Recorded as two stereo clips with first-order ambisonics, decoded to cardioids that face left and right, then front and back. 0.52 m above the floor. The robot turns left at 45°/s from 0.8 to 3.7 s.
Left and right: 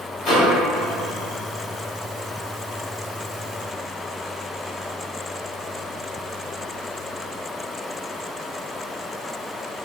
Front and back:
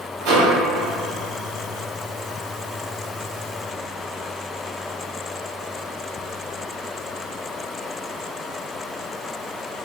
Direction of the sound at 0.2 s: 160° left.